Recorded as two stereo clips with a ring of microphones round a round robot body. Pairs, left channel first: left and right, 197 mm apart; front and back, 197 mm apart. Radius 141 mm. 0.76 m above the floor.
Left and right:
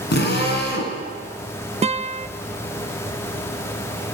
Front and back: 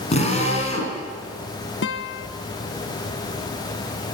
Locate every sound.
0.1 s a drill: 55° left, 6 m
1.8 s a guitar: 30° right, 0.9 m